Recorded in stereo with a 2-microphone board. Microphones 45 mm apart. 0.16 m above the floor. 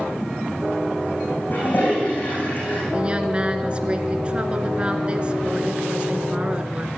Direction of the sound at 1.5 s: 40° left (ahead or behind).